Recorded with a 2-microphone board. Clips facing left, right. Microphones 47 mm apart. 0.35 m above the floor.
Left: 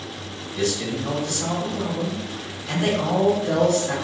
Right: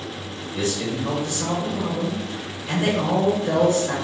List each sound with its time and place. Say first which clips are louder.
0.5 s a man speaking: even; 30° right (ahead or behind), 1.7 m